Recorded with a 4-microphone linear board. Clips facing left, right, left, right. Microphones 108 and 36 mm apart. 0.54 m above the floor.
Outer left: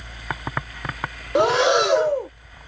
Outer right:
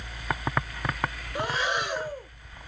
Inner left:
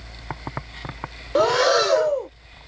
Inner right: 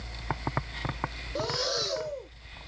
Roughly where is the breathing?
Left.